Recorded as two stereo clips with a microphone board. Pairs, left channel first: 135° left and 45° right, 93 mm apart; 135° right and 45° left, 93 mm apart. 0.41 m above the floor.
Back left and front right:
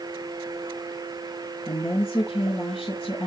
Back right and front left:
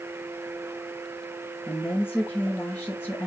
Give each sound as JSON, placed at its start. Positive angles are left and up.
{"t": 1.7, "sound": "a woman speaking", "azimuth_deg": 160, "distance_m": 5.5}